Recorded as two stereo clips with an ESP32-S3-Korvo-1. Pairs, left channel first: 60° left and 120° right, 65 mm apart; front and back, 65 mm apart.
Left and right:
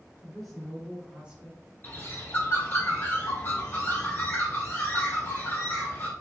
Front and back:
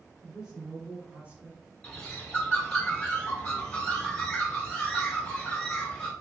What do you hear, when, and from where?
0.2 s a woman speaking: 115° left, 1.1 m; by 1.7 s 140° right, 1.2 m
1.8 s a bird: 60° left, 0.9 m